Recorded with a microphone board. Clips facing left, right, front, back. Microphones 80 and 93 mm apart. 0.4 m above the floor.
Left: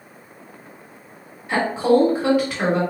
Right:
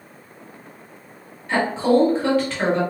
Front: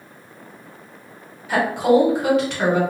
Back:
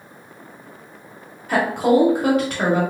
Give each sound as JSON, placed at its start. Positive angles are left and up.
{"t": 1.5, "sound": "a woman speaking", "azimuth_deg": 160, "distance_m": 1.6}